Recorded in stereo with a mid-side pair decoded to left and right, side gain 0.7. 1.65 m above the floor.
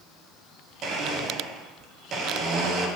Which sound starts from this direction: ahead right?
A blender, at 0.8 s.